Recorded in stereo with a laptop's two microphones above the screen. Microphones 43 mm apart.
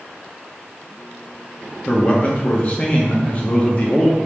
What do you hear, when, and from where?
1.9 s a man speaking: 30° left (ahead or behind), 0.6 m